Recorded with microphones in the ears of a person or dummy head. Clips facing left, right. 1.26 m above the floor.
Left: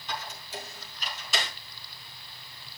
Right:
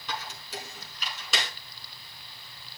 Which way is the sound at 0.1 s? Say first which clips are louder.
Even; 65° right (ahead or behind).